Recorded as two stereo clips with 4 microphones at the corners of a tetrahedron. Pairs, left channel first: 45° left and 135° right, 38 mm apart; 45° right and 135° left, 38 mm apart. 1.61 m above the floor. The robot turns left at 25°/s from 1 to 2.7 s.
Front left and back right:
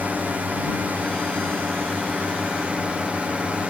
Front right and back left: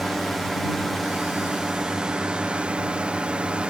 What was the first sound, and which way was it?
A drone, 130° right.